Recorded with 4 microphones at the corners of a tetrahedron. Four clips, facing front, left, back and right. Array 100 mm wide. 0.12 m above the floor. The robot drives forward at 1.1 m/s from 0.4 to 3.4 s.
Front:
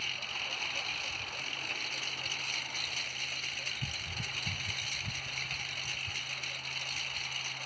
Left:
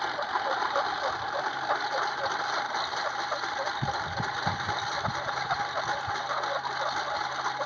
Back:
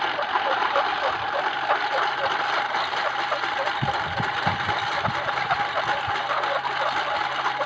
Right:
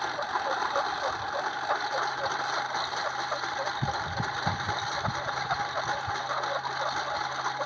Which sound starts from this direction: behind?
A lawn mower, at 0.0 s.